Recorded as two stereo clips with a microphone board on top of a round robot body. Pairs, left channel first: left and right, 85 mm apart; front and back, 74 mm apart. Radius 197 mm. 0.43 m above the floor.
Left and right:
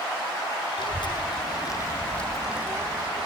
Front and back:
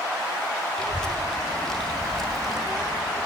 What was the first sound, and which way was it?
A child speaking, 80° left.